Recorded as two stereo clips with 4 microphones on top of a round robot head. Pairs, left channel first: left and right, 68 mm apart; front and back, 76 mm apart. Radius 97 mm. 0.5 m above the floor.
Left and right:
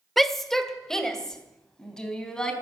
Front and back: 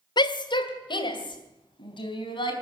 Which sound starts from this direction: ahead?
A shout, at 0.2 s.